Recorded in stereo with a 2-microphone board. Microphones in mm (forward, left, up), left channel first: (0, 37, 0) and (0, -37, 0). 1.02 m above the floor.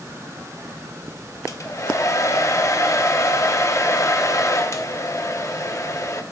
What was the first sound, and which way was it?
A hair dryer, 45° left (ahead or behind).